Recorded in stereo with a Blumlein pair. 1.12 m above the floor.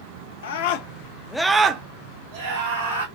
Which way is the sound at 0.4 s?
60° left.